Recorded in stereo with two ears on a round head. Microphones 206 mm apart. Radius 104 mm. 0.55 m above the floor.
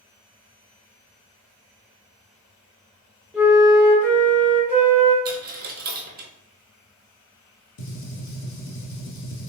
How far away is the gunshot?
About 1.2 m.